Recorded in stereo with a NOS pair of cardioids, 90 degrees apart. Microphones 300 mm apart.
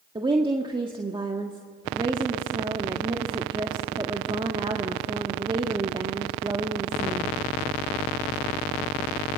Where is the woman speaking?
15° right, 1.6 m.